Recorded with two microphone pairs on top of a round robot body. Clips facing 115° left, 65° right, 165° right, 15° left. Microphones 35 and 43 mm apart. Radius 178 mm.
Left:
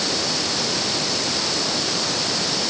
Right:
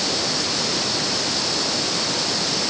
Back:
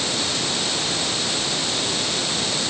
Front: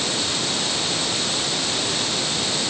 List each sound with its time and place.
Only background noise.